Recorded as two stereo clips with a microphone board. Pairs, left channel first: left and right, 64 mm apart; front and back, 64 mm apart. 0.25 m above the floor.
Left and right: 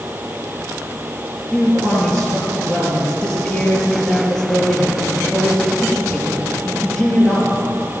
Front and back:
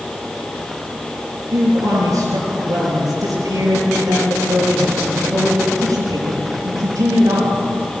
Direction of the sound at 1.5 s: 150° left.